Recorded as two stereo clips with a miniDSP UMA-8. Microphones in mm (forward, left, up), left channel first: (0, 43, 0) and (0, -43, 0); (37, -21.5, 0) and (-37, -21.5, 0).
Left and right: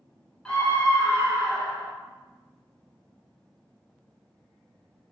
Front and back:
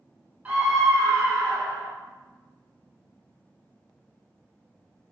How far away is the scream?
About 1.1 m.